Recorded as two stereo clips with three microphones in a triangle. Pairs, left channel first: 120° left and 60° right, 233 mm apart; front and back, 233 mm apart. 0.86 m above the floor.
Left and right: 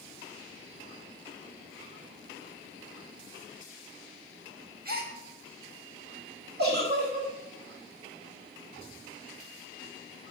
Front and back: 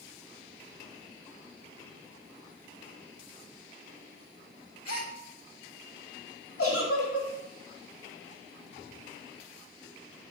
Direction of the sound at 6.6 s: 15° right.